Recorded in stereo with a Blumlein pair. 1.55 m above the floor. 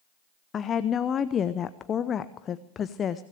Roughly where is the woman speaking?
Ahead left.